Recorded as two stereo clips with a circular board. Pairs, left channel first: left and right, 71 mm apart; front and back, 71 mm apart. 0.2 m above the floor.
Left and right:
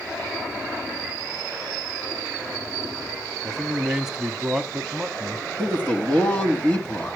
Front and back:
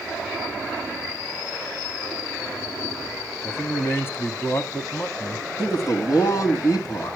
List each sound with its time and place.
3.4 s a man speaking: 10° right, 1.1 m
5.6 s a man speaking: 25° left, 2.5 m